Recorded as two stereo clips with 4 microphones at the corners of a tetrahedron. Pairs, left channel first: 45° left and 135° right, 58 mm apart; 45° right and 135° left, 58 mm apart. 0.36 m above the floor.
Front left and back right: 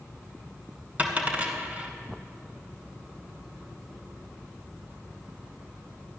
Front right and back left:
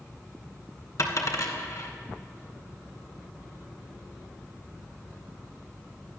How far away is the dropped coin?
About 1.8 m.